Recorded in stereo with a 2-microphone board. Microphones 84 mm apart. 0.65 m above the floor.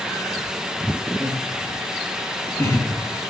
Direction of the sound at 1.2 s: 20° right (ahead or behind).